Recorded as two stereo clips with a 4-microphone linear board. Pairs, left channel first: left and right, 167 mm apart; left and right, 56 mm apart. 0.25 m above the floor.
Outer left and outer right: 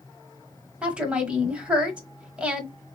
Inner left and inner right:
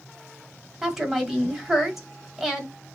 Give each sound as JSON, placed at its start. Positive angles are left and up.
{"t": 0.8, "sound": "a woman speaking", "side_deg": -5, "distance_m": 1.2}